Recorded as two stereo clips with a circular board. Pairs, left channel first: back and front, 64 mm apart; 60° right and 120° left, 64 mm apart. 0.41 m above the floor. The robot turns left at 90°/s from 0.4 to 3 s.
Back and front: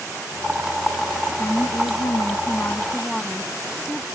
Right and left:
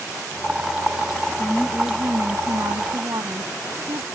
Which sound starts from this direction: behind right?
A woman speaking, at 1.4 s.